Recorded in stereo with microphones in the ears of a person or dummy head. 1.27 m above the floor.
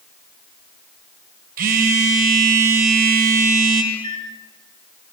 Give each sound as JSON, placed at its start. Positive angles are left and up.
{"t": 1.6, "sound": "a phone buzzing", "side_deg": -45, "distance_m": 3.0}
{"t": 3.9, "sound": "a microwave", "side_deg": -45, "distance_m": 4.5}